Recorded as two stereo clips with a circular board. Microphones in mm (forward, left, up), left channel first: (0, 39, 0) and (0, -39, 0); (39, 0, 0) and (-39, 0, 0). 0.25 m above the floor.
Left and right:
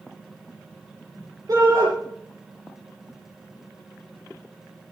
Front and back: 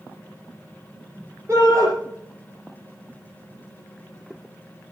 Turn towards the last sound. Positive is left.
turn(degrees=-120)